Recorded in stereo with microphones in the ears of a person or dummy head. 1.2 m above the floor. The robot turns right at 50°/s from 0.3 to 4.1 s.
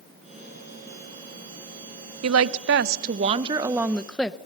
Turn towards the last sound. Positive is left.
turn(degrees=5)